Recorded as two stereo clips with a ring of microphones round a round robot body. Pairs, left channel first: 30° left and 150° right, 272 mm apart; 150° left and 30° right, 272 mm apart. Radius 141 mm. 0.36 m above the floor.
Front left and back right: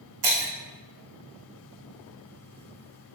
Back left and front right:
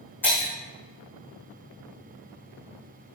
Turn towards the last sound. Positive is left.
turn(degrees=-125)